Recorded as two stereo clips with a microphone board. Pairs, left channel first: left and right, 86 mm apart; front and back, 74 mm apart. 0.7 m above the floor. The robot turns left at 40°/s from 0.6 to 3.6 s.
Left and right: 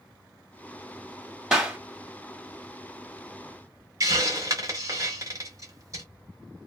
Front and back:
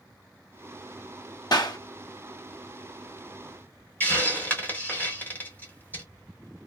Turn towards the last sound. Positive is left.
turn(degrees=-60)